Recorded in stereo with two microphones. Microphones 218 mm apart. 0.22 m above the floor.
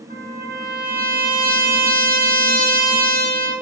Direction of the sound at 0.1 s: 40° right (ahead or behind).